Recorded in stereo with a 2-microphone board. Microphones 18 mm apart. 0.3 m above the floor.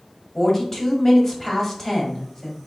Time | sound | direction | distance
0.3 | a woman speaking | 25° left (ahead or behind) | 1.2 m